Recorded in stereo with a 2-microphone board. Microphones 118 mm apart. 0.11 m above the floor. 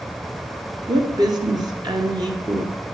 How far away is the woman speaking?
About 1.5 m.